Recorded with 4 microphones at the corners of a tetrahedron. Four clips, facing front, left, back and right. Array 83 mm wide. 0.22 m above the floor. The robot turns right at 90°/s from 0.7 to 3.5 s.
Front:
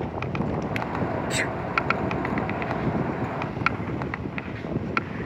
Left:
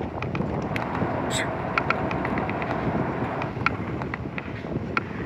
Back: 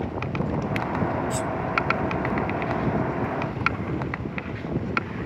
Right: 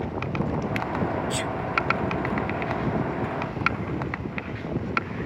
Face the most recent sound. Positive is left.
turn(degrees=-160)